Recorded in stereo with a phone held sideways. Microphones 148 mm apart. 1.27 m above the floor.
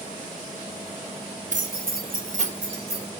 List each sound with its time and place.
1.5 s keys jangling: 55° right (ahead or behind), 1.0 m; by 3.1 s 35° right (ahead or behind), 2 m